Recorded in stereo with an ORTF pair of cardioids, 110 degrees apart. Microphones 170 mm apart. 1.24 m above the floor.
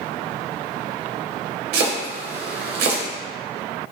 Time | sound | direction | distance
1.7 | chopping | 65° right | 0.7 m